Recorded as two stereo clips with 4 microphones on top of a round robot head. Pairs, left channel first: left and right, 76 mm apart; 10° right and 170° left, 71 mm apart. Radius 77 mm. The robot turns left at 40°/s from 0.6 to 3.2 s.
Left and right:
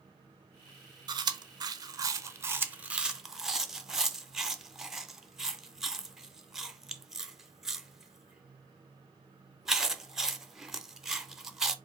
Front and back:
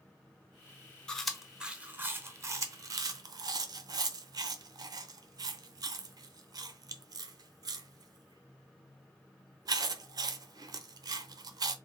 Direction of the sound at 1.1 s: 90° right.